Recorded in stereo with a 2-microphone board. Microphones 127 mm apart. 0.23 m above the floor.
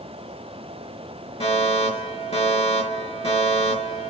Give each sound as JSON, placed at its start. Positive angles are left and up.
{"t": 1.4, "sound": "a fire alarm", "side_deg": 55, "distance_m": 6.0}